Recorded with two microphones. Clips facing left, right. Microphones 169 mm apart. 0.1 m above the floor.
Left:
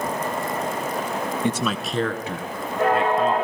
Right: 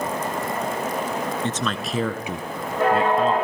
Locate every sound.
1.4 s a man speaking: 15° left (ahead or behind), 1.1 m; by 3.3 s 30° right (ahead or behind), 1.9 m